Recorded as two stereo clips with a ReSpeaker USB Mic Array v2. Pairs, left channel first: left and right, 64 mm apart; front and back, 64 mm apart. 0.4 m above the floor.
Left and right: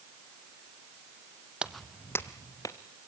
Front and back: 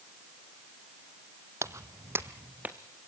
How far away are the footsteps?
About 0.6 m.